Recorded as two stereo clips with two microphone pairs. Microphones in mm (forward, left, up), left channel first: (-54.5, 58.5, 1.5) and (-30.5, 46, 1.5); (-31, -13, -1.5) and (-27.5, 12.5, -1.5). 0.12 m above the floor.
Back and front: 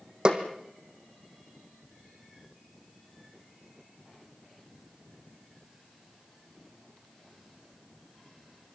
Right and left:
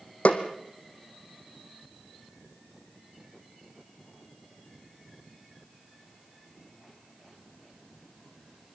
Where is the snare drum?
80° right, 2.5 m.